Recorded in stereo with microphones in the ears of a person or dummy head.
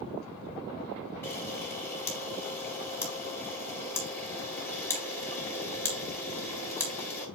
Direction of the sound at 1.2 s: 20° left (ahead or behind).